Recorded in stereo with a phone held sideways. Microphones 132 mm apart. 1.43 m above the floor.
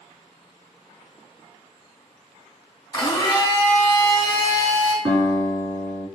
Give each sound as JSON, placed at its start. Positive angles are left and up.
{"t": 2.9, "sound": "a blender", "side_deg": 30, "distance_m": 2.0}
{"t": 5.0, "sound": "a guitar", "side_deg": -45, "distance_m": 3.5}